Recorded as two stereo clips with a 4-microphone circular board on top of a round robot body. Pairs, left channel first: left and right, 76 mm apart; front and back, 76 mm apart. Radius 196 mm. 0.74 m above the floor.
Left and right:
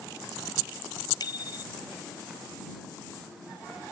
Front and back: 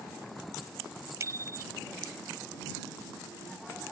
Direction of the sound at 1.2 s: 125° left.